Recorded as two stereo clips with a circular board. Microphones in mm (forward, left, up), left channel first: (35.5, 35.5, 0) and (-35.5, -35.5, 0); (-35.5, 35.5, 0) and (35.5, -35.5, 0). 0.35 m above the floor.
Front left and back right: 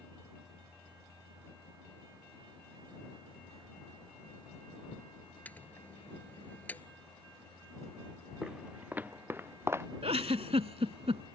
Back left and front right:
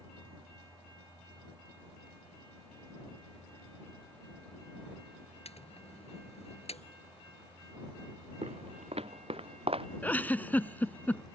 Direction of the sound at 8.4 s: 55° right.